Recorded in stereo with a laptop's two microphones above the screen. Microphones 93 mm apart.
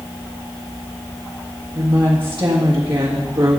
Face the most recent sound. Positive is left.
turn(degrees=-55)  # may be behind; listen again after turning